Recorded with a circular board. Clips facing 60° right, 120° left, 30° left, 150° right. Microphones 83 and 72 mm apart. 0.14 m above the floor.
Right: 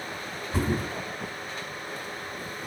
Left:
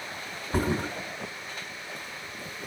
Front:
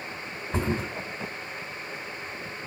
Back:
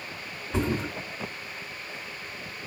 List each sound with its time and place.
0.5 s a thud: 85° left, 2.5 m